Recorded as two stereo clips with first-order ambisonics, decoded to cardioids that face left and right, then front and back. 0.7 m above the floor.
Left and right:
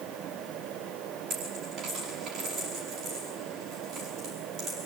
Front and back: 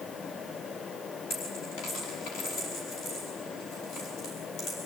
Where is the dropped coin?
25° right, 5 m.